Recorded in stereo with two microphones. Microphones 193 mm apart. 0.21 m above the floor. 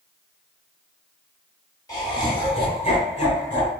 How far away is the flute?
No flute in this recording.